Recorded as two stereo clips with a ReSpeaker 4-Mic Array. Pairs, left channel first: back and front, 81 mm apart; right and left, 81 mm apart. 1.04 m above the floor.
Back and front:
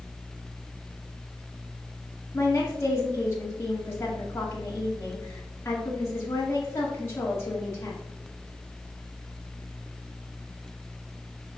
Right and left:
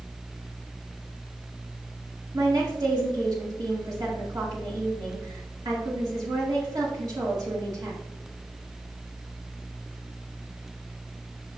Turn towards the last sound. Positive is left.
turn(degrees=125)